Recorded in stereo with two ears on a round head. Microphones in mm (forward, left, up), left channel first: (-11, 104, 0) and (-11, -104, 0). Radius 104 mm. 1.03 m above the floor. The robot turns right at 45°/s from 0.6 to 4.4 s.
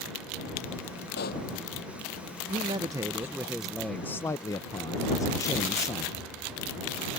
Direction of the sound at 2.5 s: 25° right (ahead or behind).